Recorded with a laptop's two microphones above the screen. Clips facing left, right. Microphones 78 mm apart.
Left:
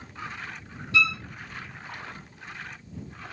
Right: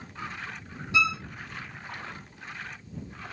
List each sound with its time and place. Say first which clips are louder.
0.9 s a violin: left 1 dB; 20° right (ahead or behind)